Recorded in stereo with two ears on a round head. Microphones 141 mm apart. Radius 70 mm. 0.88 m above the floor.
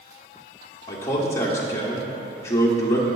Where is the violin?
No violin in this recording.